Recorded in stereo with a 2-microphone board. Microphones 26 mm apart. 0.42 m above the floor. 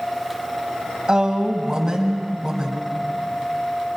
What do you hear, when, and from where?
1.1 s a woman speaking: 25° right (ahead or behind), 3 m